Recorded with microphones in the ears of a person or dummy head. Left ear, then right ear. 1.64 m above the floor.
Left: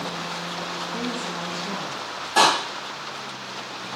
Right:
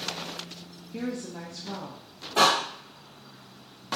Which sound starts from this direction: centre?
A woman speaking, at 0.9 s.